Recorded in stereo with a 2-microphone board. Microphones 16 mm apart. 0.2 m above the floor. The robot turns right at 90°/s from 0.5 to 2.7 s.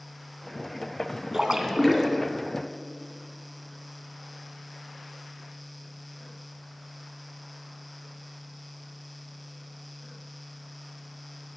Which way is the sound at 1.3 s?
35° right (ahead or behind).